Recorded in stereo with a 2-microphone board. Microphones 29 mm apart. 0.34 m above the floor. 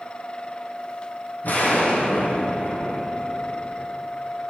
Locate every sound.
1.4 s an explosion: 70° left (ahead or behind), 3 m